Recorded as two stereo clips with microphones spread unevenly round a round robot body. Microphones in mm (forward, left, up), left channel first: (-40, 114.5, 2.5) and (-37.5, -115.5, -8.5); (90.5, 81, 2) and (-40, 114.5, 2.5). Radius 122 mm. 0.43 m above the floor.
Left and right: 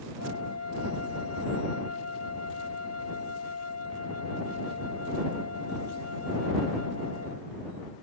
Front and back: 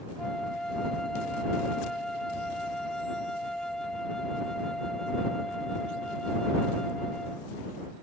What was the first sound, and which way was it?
A flute, 70° left.